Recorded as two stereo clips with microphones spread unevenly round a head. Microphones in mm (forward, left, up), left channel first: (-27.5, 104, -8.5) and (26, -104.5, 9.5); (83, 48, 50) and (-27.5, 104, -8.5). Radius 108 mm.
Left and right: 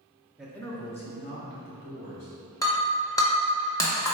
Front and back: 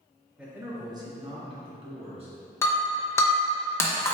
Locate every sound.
0.4 s a man speaking: 165° right, 0.6 m; by 2.4 s 135° left, 1.6 m
2.6 s breaking glass: 30° left, 0.7 m